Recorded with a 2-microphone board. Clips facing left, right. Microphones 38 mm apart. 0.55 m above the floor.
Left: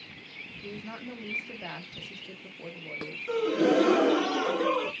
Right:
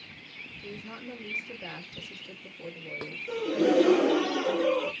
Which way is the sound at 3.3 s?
50° left (ahead or behind).